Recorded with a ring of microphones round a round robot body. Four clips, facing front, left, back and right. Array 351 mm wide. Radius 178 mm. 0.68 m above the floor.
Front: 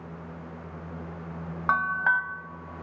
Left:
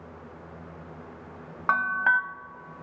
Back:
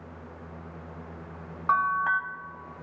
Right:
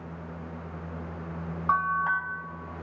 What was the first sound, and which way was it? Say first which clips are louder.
A bell: left 1 dB, back 1 dB; 45° left.